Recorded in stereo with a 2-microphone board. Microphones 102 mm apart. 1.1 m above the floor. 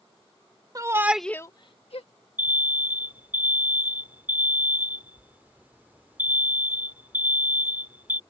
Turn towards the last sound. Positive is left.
turn(degrees=-20)  # may be behind; listen again after turning